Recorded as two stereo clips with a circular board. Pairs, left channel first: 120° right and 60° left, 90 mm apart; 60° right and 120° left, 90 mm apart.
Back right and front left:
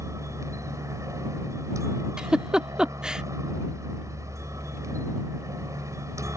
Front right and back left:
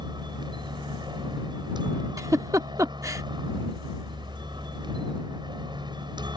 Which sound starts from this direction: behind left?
A giggle, at 2.2 s.